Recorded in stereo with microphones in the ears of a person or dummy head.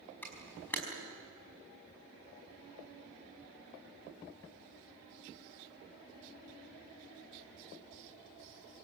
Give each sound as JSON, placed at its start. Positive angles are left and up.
{"t": 0.2, "sound": "a camera shutter", "side_deg": 5, "distance_m": 5.5}